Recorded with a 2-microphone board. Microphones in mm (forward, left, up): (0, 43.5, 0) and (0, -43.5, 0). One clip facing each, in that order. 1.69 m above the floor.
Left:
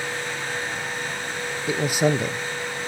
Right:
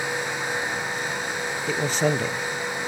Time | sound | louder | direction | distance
1.7 | a man speaking | left 2 dB | 10° left (ahead or behind) | 1.0 m